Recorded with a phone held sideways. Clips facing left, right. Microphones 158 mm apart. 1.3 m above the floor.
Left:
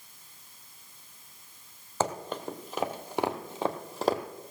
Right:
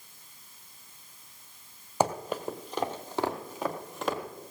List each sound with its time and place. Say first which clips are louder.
2.0 s running footsteps: right 3 dB; 15° right (ahead or behind), 1.4 m; by 4.2 s 40° left (ahead or behind), 1.7 m